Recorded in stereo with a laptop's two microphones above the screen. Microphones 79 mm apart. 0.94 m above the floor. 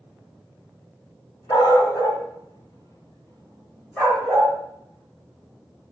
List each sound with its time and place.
1.5 s a dog barking: 65° left (ahead or behind), 2.5 m; by 4.5 s 5° left (ahead or behind), 2.5 m